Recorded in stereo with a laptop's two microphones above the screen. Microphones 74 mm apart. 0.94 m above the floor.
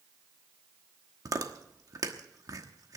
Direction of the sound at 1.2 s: 55° right (ahead or behind).